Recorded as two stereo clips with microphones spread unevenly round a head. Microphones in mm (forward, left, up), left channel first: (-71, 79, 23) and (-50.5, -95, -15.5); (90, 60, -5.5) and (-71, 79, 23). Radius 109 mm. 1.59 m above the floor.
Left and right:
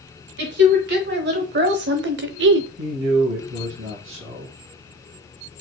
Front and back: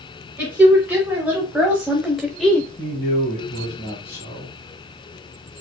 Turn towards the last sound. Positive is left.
turn(degrees=-70)